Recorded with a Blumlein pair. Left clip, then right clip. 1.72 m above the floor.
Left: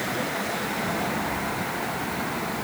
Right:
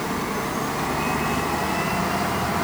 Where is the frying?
No frying in this recording.